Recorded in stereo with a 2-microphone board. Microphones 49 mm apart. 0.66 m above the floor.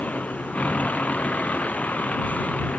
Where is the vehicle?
30° left (ahead or behind).